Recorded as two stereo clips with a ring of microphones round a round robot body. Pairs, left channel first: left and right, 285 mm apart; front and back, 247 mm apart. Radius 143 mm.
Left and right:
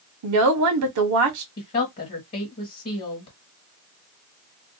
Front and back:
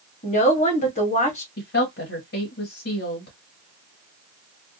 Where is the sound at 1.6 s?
35° left, 1.4 m.